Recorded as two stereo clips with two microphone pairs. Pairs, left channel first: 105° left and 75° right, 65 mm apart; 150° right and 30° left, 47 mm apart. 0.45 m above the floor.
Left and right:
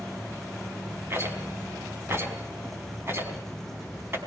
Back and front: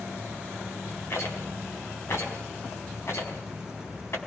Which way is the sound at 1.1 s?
130° right.